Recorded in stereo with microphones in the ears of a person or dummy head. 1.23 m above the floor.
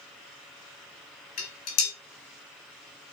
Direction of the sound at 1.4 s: 50° left (ahead or behind).